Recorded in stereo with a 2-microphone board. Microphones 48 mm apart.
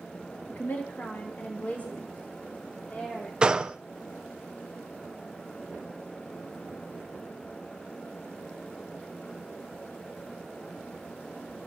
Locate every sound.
0.5 s a woman speaking: 45° left (ahead or behind), 2.5 m; by 3.3 s 35° left (ahead or behind), 6 m
3.4 s a gunshot: 20° right (ahead or behind), 0.8 m